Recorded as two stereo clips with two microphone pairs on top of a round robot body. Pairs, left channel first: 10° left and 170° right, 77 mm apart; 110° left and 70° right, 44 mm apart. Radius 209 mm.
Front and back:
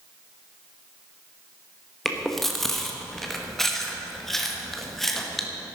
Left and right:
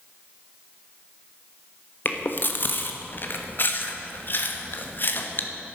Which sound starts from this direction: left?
Chewing, at 2.0 s.